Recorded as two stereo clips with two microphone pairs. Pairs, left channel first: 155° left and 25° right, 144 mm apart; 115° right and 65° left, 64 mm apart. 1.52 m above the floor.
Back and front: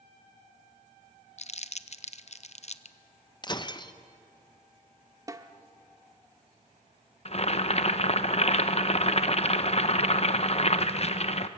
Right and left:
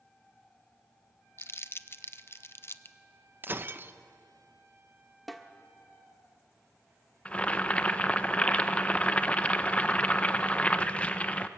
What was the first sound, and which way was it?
Crumpling, 165° right.